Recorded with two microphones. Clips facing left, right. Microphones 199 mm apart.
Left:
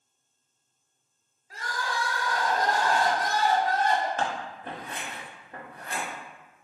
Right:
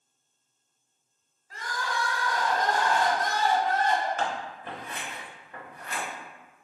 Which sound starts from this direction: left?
Scissors, at 4.2 s.